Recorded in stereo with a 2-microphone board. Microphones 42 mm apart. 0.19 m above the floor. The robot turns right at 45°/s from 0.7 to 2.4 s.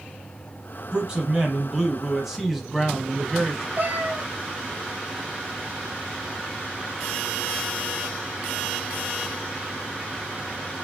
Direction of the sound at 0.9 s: 20° right (ahead or behind).